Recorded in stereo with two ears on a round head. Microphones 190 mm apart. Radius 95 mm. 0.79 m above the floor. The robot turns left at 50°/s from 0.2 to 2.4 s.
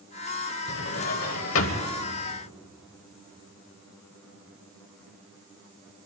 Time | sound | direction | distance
0.7 | a drawer | 120° left | 1.2 m